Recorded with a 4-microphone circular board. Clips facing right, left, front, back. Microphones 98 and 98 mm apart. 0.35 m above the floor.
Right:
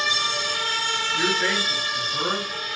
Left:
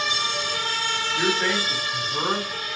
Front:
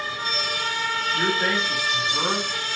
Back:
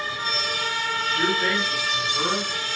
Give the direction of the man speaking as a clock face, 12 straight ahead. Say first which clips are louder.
Left 1 dB, even; 10 o'clock.